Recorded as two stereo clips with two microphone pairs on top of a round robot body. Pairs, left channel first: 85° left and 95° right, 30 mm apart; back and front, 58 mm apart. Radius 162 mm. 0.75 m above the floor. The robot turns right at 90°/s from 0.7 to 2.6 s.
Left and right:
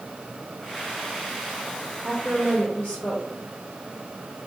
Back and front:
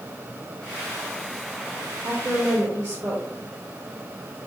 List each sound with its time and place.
2.0 s a woman speaking: straight ahead, 2 m; by 3.2 s 50° left, 2 m